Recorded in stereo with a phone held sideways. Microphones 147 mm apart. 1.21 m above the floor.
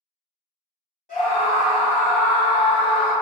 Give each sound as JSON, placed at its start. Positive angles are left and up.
{"t": 1.1, "sound": "a scream", "side_deg": 65, "distance_m": 1.6}